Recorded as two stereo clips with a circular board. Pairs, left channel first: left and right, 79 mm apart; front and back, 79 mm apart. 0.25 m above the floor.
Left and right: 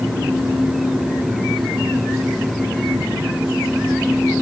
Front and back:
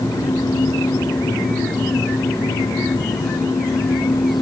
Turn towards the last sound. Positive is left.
No sound to turn to.